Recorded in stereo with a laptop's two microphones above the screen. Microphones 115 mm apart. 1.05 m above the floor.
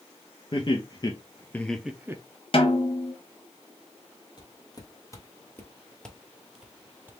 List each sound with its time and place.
0.5 s laughter: 45° left (ahead or behind), 1.1 m; by 2.2 s 25° right (ahead or behind), 0.6 m
2.5 s a snare drum: 50° left (ahead or behind), 1.0 m
4.4 s footsteps: 40° left (ahead or behind), 1.4 m; by 7.1 s 15° right (ahead or behind), 1.1 m